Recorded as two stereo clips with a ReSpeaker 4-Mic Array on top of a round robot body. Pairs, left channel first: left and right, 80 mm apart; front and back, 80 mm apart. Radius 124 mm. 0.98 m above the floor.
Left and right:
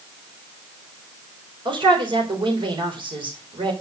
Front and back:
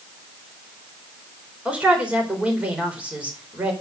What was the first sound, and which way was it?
A man speaking, 105° right.